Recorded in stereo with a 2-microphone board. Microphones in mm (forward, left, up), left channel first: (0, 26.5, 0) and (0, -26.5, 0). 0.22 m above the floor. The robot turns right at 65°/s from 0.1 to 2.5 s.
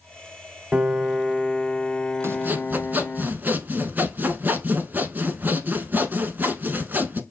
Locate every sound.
0.7 s a piano: 20° right (ahead or behind), 0.6 m; by 3.2 s 25° left (ahead or behind), 0.6 m
2.2 s sawing: 50° right (ahead or behind), 0.8 m; by 7.2 s 35° right (ahead or behind), 0.8 m